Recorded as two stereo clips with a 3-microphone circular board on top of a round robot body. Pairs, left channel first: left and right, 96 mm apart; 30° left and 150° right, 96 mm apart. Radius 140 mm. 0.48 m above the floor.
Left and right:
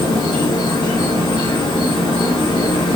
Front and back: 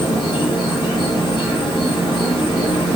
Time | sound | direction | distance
0.0 | an insect | 70° left | 1.5 m